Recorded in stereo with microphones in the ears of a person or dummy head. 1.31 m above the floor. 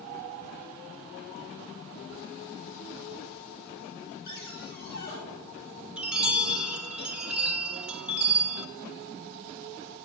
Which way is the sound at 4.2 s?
55° left (ahead or behind).